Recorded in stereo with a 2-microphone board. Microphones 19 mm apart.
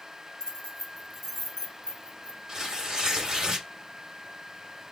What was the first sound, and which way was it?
Keys jangling, 30° left (ahead or behind).